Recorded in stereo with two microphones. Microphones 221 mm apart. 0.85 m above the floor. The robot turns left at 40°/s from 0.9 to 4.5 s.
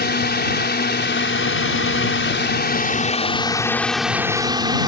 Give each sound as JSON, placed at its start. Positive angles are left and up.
{"t": 0.0, "sound": "a drone", "azimuth_deg": 125}